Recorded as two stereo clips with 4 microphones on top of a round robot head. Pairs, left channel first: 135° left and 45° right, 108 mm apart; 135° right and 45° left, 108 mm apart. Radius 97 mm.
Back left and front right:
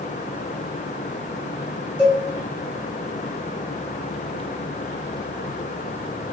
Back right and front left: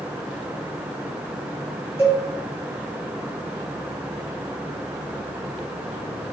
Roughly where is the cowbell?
Behind.